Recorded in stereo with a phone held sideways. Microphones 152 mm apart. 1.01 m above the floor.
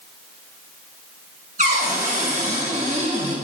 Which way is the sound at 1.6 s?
50° right (ahead or behind).